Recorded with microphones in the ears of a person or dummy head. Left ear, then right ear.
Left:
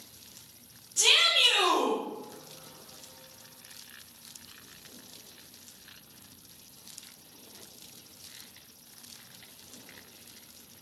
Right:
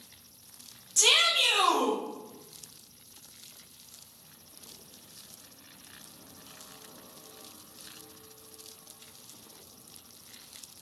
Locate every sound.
1.0 s a shout: 25° right (ahead or behind), 0.5 m; by 2.0 s 5° left (ahead or behind), 1.3 m